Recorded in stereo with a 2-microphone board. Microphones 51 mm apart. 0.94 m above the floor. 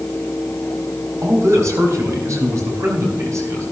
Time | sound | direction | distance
1.2 | a man speaking | 80° right | 4.5 m